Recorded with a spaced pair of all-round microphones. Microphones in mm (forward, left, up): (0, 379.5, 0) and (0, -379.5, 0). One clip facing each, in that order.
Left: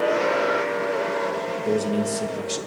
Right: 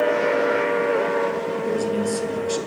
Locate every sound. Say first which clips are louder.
1.6 s a man speaking: left 1 dB; 55° left (ahead or behind), 1.8 m